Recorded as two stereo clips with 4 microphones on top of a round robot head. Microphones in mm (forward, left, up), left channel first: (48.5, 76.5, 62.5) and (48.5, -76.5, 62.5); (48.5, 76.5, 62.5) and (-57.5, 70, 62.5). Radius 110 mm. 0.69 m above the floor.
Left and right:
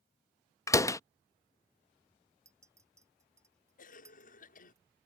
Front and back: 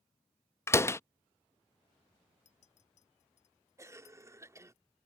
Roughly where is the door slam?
Ahead left.